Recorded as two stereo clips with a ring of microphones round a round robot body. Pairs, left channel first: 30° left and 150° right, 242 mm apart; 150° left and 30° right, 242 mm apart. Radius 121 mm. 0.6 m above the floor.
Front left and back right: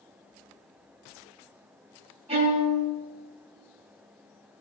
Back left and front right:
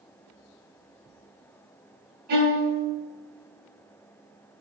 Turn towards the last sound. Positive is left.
turn(degrees=-85)